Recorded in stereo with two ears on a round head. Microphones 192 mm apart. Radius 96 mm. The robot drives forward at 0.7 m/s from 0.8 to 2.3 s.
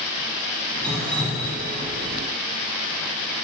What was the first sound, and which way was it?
Dripping, 5° left (ahead or behind).